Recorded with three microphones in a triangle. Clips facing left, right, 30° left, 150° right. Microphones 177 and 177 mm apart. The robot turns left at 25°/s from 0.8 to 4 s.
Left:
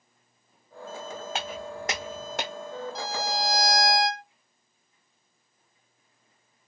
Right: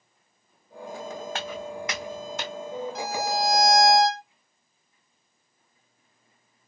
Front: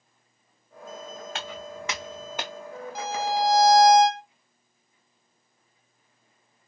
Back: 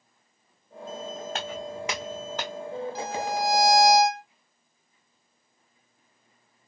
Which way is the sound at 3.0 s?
85° left.